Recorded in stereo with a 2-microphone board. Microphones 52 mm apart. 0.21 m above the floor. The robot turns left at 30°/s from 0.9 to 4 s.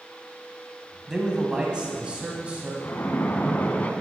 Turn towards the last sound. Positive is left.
turn(degrees=35)